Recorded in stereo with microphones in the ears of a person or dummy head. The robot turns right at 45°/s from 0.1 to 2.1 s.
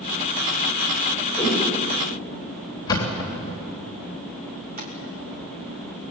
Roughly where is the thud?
Left.